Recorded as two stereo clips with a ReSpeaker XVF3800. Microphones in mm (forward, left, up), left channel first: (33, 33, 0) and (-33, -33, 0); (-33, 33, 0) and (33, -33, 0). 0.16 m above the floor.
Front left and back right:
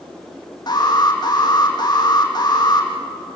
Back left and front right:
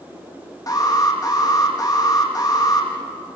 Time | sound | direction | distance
0.7 | an alarm | 90° left | 5.5 m